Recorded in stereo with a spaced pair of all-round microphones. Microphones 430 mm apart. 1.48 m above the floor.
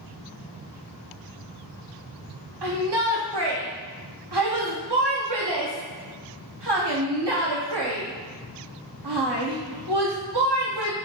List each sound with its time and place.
2.6 s a shout: 65° right (ahead or behind), 0.8 m